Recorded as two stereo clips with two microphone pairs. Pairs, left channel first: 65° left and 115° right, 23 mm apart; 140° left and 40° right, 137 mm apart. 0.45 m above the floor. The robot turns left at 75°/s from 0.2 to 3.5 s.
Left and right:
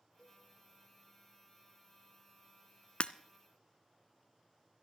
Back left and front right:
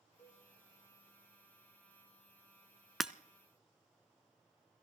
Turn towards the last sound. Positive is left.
turn(degrees=10)